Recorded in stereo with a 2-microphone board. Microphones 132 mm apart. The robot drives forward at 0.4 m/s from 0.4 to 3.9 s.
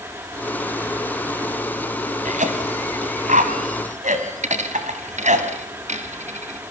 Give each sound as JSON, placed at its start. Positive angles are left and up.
{"t": 2.2, "sound": "a cough", "side_deg": -70, "distance_m": 3.0}
{"t": 4.4, "sound": "a dropped coin", "side_deg": -65, "distance_m": 1.7}